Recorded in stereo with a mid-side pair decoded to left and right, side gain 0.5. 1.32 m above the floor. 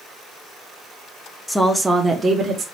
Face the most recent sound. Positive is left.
turn(degrees=-30)